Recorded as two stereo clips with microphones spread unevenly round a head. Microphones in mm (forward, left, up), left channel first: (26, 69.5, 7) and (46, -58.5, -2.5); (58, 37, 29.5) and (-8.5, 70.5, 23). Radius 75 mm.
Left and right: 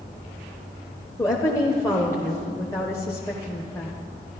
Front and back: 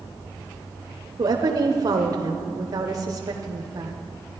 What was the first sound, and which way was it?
A woman speaking, 170° left.